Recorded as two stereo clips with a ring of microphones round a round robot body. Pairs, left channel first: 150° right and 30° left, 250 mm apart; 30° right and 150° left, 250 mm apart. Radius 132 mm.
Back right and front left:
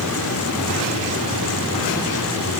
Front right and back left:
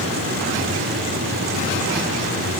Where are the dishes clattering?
I don't hear dishes clattering.